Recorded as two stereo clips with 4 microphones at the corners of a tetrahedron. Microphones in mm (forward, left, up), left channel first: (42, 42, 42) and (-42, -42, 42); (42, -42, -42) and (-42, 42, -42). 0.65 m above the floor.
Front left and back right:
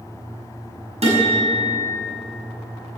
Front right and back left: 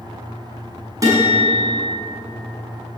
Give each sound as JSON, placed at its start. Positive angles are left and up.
{"t": 1.0, "sound": "a guitar", "azimuth_deg": -165, "distance_m": 6.0}